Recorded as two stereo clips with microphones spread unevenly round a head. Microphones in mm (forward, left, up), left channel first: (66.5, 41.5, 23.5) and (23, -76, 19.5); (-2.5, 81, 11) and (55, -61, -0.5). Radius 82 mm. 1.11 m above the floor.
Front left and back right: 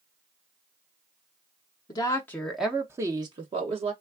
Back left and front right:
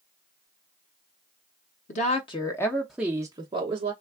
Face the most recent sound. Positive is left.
turn(degrees=-100)